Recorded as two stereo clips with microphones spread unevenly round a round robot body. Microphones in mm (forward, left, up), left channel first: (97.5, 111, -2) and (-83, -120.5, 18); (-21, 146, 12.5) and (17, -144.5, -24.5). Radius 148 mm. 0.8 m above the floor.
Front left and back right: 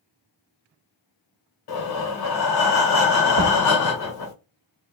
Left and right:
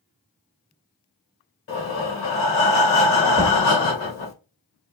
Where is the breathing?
50° left, 1.9 m.